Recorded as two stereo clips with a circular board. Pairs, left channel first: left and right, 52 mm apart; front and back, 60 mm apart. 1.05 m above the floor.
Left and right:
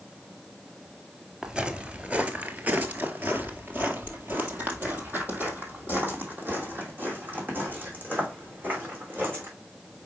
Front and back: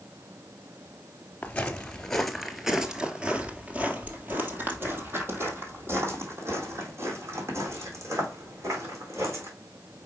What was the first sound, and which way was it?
Footsteps, 35° right.